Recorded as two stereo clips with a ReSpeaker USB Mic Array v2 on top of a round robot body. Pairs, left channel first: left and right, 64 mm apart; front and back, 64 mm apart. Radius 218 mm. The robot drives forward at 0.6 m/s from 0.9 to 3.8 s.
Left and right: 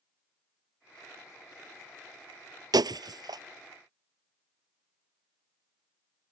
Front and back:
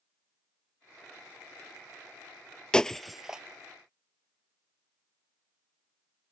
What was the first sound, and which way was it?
Breaking glass, 75° right.